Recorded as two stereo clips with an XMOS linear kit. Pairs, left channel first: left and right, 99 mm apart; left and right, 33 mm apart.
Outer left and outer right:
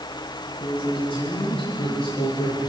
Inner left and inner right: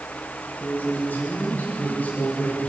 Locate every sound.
0.6 s a man speaking: 70° left (ahead or behind), 9.5 m